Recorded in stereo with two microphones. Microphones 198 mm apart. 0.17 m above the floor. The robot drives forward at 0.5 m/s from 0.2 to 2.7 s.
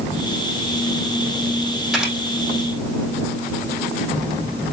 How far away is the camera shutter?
About 4 m.